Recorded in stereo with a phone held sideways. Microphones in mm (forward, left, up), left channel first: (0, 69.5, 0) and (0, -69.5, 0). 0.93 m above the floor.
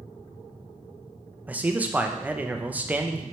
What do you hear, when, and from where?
1.5 s a man speaking: 10° right (ahead or behind), 0.5 m